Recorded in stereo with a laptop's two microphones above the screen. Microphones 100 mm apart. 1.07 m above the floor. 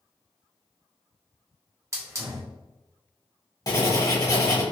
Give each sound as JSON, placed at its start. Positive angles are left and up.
{"t": 1.9, "sound": "a hiss", "side_deg": -30, "distance_m": 0.8}
{"t": 3.7, "sound": "writing", "side_deg": 40, "distance_m": 1.3}